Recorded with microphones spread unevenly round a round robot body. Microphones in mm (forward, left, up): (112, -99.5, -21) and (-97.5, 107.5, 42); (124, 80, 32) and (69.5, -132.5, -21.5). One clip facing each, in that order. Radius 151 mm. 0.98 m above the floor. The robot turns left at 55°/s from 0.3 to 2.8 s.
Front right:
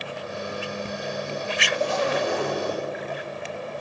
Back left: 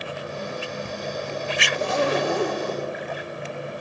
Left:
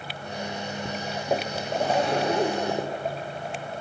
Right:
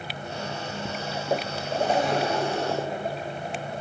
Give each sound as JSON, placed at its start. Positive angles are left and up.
{"t": 1.7, "sound": "a zipper", "azimuth_deg": -175, "distance_m": 3.5}